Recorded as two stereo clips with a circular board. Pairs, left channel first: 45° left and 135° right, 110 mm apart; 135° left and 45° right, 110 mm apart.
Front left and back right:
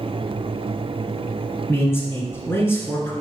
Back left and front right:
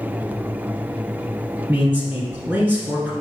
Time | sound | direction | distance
1.7 | a man speaking | 15° left | 1.2 m